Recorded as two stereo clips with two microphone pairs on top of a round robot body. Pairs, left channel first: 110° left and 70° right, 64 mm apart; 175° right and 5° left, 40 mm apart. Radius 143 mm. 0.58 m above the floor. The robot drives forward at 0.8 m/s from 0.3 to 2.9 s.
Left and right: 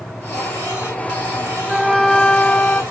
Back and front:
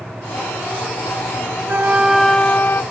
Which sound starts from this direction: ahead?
A flute, at 1.7 s.